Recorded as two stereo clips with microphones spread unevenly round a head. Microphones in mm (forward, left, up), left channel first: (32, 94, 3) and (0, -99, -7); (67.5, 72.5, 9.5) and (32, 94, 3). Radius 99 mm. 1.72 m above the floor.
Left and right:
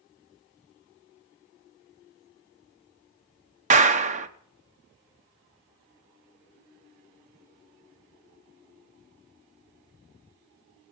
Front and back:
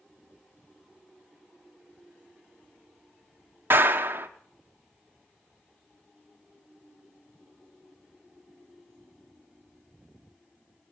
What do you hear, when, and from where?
3.7 s a clap: 155° right, 0.8 m